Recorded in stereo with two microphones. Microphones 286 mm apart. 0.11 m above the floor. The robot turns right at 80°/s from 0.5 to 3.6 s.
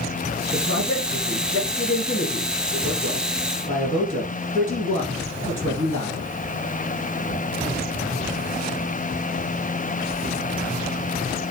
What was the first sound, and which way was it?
A man speaking, 30° right (ahead or behind).